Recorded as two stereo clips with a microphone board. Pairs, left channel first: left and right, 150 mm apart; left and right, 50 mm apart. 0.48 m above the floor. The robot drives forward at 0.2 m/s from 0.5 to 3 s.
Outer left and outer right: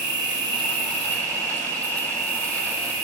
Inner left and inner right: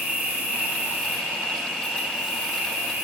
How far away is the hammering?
No hammering in this recording.